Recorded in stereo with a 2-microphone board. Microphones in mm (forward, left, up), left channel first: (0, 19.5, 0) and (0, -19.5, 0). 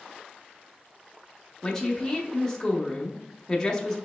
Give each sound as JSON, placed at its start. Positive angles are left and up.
{"t": 1.6, "sound": "a woman speaking", "side_deg": 10, "distance_m": 0.7}